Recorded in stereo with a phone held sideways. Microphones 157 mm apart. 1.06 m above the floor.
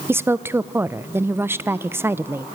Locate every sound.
0.1 s a woman speaking: 15° right (ahead or behind), 0.5 m